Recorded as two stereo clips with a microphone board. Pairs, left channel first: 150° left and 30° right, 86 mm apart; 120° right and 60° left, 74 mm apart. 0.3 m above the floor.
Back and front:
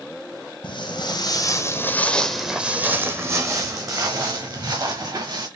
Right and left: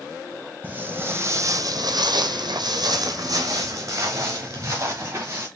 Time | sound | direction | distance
0.6 | footsteps | 130° left | 0.9 m